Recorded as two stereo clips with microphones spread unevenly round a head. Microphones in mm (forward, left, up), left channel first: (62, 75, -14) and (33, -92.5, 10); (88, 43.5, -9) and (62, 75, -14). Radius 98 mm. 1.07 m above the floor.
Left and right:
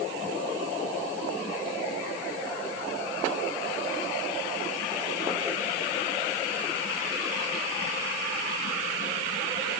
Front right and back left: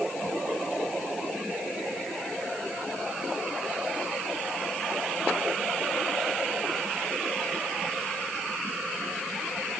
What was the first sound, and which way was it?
Only background noise.